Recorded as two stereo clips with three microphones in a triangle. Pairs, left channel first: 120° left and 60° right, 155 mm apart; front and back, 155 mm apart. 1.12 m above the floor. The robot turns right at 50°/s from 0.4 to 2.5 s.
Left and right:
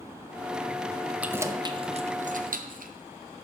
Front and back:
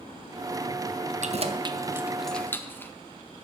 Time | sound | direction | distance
1.2 | keys jangling | 140° right | 0.7 m